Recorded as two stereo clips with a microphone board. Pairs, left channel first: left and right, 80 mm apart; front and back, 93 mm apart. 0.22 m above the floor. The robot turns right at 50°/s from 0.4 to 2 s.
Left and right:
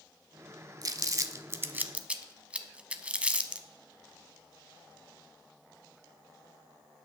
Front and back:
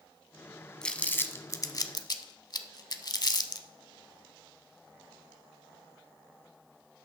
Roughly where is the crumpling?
Right.